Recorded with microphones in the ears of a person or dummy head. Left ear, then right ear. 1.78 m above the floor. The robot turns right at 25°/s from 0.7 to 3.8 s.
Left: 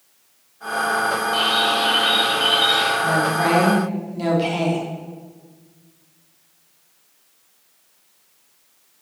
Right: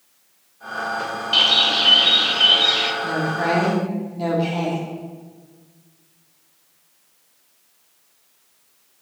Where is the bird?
65° right, 1.8 m; by 2.9 s 25° right, 1.8 m.